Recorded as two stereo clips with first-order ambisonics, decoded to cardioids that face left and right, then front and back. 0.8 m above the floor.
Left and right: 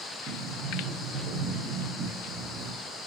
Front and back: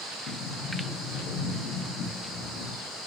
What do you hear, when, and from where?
0.3 s a sliding door: 35° right, 1.2 m